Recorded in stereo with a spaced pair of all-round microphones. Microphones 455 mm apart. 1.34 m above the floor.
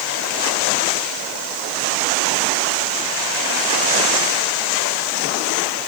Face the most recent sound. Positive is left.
No sound to turn to.